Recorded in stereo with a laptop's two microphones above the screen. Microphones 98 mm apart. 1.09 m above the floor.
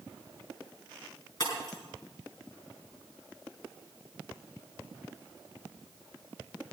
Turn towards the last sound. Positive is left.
turn(degrees=35)  # may be behind; listen again after turning